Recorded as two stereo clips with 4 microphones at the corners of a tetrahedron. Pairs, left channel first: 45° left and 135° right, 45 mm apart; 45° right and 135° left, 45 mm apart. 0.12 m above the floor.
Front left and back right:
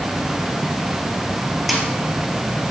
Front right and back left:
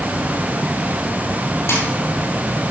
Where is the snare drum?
50° right, 2.5 m.